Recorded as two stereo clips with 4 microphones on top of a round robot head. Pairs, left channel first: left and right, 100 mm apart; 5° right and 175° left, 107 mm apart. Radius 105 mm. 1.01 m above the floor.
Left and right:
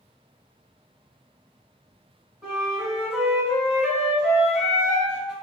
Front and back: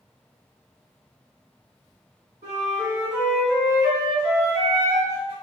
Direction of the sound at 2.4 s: 165° right.